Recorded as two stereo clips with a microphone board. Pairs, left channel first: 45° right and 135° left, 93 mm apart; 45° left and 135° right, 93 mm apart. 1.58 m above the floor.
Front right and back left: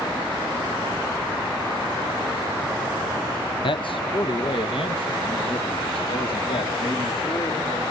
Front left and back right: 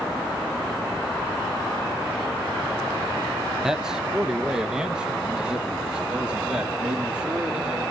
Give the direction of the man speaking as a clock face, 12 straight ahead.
2 o'clock.